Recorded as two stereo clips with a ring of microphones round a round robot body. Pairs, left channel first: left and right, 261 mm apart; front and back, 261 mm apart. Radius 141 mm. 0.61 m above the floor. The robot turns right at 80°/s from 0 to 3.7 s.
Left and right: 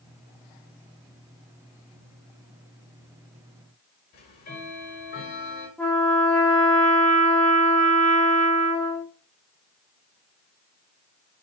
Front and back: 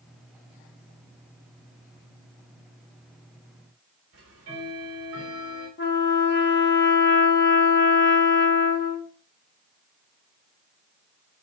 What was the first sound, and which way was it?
Ticking, 140° left.